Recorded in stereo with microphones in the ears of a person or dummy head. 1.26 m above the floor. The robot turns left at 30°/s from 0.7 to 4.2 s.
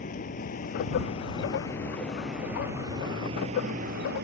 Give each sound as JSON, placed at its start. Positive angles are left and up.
{"t": 0.0, "sound": "a vehicle", "azimuth_deg": 45}